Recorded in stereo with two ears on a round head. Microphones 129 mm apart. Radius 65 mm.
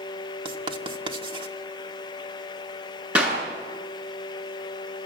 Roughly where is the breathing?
I don't hear breathing.